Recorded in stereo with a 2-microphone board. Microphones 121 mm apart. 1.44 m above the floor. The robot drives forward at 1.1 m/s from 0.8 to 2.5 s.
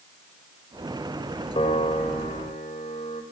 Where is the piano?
65° left (ahead or behind), 3 m; by 3.2 s 75° left (ahead or behind), 3 m.